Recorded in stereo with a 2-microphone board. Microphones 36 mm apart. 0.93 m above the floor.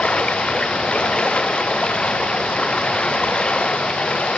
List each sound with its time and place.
0.0 s running water: 30° left (ahead or behind)